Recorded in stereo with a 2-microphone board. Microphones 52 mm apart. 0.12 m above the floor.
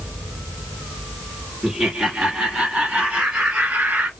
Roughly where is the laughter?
Centre.